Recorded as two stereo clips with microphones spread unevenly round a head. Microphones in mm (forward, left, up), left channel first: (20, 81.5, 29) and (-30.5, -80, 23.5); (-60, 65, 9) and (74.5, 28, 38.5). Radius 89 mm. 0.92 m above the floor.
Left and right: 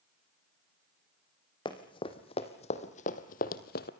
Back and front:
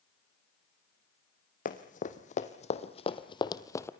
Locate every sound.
1.6 s running footsteps: 135° left, 2.5 m; by 3.9 s 85° left, 1.4 m